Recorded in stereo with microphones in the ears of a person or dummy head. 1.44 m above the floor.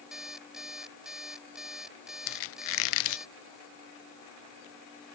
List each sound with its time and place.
0.1 s an alarm clock: 5° right (ahead or behind)
2.3 s a squeak: 70° left (ahead or behind)